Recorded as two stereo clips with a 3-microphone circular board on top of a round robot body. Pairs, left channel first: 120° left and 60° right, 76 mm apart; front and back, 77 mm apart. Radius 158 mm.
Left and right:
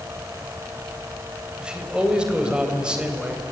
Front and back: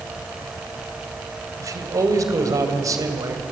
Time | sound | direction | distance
1.6 | a man speaking | 140° right | 3.5 m